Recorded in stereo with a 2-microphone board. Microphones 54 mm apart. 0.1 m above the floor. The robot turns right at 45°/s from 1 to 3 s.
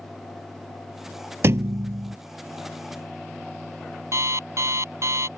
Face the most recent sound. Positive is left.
turn(degrees=-65)  # may be behind; listen again after turning